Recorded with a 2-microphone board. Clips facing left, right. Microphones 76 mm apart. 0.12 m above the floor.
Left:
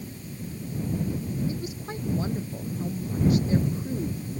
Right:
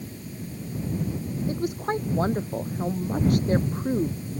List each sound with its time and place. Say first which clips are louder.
1.5 s a woman speaking: right 7 dB; 55° right (ahead or behind)